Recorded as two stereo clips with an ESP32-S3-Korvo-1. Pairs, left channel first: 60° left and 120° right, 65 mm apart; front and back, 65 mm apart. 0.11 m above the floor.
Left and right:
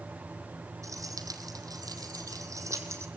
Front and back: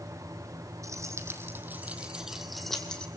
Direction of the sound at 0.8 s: 150° right.